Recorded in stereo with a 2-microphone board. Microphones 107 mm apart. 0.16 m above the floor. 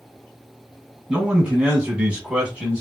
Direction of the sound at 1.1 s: 10° right (ahead or behind).